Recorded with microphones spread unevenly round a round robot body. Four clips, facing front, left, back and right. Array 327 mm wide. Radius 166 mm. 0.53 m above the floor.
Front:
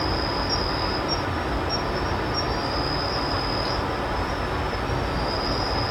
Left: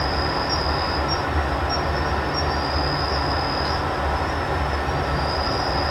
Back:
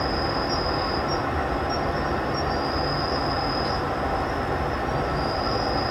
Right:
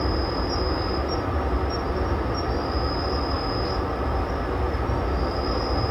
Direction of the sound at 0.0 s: 115° left.